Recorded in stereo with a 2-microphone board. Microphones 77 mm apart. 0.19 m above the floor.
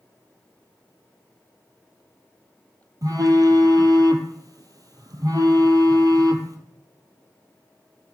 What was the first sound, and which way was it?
A phone buzzing, 50° right (ahead or behind).